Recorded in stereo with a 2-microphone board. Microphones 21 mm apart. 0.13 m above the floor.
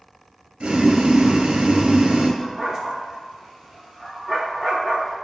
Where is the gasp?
I don't hear a gasp.